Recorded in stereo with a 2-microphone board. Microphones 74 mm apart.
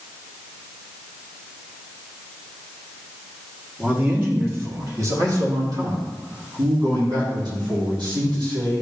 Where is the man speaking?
25° right (ahead or behind), 2 m; by 8.8 s 80° right, 3.5 m.